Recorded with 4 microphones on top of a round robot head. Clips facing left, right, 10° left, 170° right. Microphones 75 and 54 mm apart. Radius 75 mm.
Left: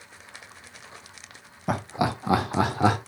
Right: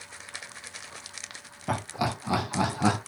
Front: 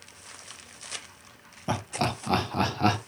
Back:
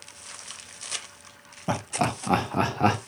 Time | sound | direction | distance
1.7 | laughter | 130° left | 0.7 m